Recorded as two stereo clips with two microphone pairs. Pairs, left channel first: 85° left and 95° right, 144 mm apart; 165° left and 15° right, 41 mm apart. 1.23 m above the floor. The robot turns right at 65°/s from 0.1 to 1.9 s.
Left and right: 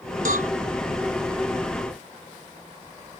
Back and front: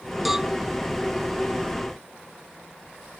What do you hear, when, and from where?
0.2 s a cowbell: 105° right; by 0.5 s 90° right